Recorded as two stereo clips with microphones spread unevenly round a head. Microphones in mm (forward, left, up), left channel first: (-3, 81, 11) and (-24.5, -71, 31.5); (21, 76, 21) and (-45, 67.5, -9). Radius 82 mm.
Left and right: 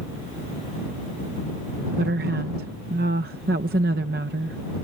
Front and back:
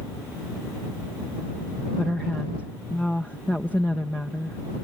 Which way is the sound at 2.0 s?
65° right.